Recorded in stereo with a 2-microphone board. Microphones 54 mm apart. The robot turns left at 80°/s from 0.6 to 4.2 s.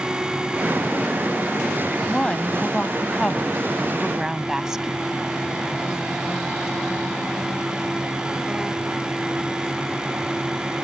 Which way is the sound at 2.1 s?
15° left (ahead or behind).